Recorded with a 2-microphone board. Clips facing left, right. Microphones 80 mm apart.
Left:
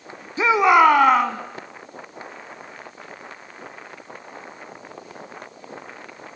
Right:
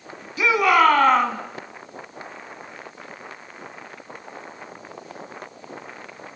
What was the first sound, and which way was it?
A shout, 30° left (ahead or behind).